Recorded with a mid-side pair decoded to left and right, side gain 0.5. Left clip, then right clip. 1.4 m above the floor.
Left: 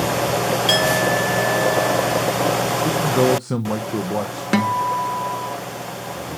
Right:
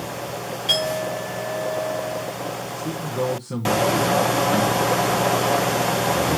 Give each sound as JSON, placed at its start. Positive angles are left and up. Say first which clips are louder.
{"t": 0.7, "sound": "a clink", "louder": "left 3 dB", "azimuth_deg": 50, "distance_m": 4.5}
{"t": 2.8, "sound": "a man speaking", "louder": "left 8 dB", "azimuth_deg": 50, "distance_m": 1.2}
{"t": 4.5, "sound": "a guitar", "louder": "even", "azimuth_deg": 70, "distance_m": 0.9}